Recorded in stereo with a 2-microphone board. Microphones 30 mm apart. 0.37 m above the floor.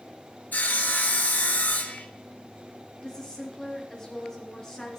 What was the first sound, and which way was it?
Sawing, 75° left (ahead or behind).